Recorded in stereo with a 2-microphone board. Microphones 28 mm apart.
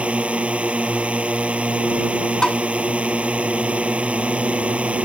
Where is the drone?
50° right (ahead or behind).